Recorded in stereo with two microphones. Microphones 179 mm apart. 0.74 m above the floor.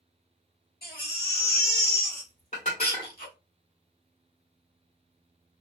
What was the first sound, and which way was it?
A baby crying, 60° left (ahead or behind).